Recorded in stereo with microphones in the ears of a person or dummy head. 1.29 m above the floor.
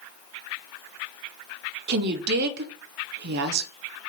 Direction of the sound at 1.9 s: 55° right (ahead or behind).